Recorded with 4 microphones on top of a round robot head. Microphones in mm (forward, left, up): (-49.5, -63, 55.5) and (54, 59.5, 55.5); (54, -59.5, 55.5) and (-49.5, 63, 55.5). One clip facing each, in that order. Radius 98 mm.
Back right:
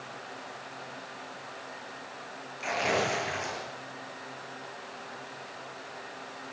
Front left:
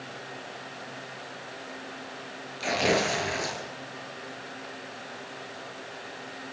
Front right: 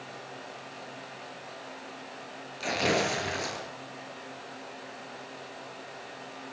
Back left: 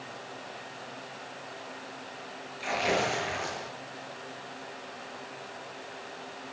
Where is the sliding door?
No sliding door in this recording.